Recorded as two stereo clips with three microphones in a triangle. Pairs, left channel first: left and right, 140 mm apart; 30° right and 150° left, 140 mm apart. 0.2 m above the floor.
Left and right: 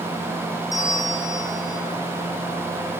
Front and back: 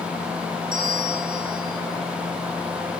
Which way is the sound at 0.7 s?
155° left.